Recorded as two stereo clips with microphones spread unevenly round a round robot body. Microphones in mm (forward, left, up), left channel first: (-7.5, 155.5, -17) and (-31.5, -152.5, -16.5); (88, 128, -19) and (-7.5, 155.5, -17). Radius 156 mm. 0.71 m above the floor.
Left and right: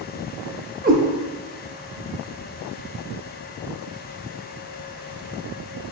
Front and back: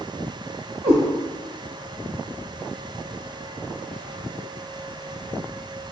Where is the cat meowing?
160° right, 0.6 m.